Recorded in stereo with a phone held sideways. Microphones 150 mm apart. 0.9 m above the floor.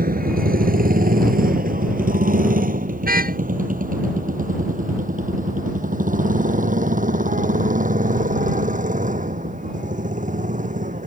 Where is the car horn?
85° right.